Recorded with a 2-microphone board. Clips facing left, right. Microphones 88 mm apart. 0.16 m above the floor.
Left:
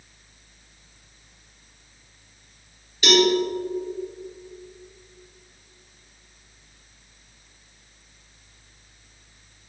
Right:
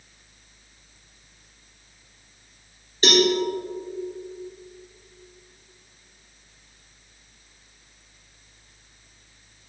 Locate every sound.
3.0 s a cowbell: 35° right (ahead or behind), 2.5 m